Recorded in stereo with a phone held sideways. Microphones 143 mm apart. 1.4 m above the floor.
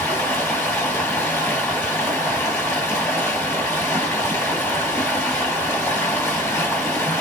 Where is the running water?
15° left (ahead or behind), 2 m.